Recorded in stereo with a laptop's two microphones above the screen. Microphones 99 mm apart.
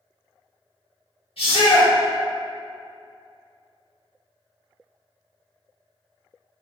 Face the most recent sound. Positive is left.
turn(degrees=70)  # may be behind; listen again after turning